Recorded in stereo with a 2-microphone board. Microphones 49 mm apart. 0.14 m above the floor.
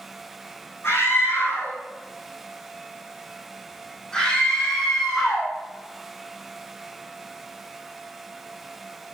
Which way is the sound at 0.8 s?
55° left (ahead or behind).